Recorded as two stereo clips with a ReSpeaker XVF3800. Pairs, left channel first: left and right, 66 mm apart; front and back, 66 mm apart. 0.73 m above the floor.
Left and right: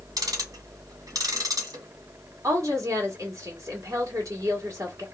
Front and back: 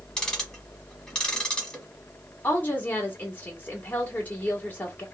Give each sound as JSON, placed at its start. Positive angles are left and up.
{"t": 0.2, "sound": "ticking", "azimuth_deg": -80, "distance_m": 1.2}
{"t": 2.4, "sound": "a woman speaking", "azimuth_deg": -60, "distance_m": 1.5}